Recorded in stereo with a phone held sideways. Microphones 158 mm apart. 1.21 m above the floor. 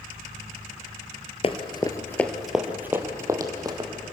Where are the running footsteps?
40° left (ahead or behind), 1.5 m; by 3.9 s 25° right (ahead or behind), 3 m.